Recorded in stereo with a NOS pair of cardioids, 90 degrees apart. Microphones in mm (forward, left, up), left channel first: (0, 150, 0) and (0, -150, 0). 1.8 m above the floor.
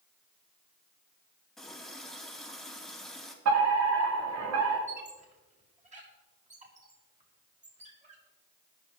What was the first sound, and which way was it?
A running tap, straight ahead.